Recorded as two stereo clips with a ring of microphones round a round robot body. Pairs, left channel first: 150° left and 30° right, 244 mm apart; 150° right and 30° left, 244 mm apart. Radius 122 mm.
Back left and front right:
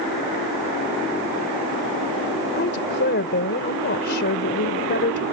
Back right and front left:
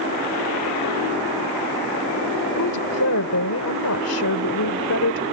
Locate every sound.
2.5 s a woman speaking: 165° right